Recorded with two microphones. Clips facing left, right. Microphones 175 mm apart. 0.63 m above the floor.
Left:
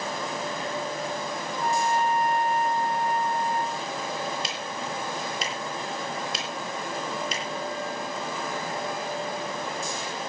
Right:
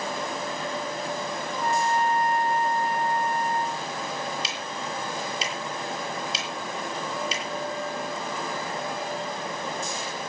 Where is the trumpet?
Centre (ahead or behind), 4 m.